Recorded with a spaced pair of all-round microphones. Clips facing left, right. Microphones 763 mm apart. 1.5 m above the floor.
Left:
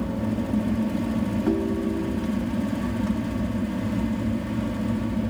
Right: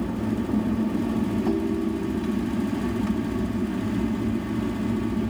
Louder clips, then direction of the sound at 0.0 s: Even; 10° left (ahead or behind).